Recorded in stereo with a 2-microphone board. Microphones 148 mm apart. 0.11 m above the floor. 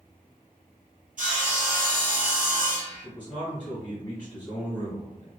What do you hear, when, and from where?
1.2 s sawing: 65° right (ahead or behind), 1.0 m
3.0 s a man speaking: 10° left (ahead or behind), 1.8 m